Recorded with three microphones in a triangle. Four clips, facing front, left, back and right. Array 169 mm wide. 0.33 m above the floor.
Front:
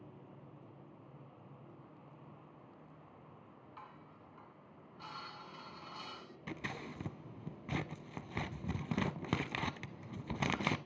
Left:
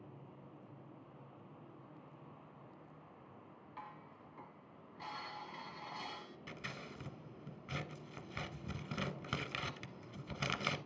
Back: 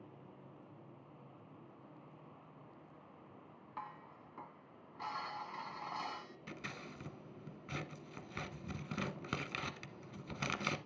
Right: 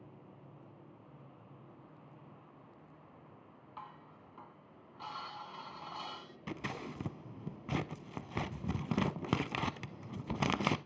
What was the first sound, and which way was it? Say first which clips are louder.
Dishes clattering: right 2 dB, back 7 dB; 160° right.